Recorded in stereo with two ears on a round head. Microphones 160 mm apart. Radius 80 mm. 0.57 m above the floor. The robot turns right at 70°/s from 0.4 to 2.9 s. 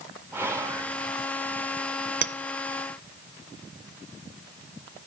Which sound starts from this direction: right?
A clink, at 2.2 s.